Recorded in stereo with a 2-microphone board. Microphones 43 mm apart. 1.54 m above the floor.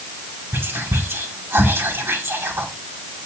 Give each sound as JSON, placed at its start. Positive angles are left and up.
{"t": 0.5, "sound": "whispering", "side_deg": -65, "distance_m": 1.9}